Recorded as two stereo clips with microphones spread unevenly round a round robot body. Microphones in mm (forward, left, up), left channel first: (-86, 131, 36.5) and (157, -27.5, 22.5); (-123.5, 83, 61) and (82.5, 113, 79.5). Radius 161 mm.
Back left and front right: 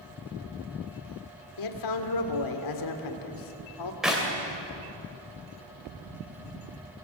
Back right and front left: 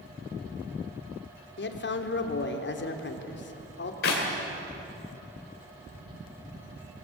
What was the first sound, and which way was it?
A man speaking, 160° left.